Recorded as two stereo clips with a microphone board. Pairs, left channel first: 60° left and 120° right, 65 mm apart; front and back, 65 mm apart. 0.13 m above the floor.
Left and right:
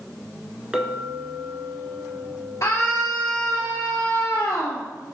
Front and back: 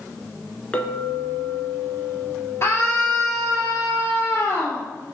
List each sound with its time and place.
0.7 s a clink: 55° right, 1.1 m
2.6 s a scream: 30° left, 1.8 m